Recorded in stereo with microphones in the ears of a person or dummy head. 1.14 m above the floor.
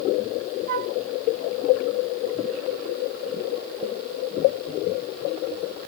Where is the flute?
60° right (ahead or behind).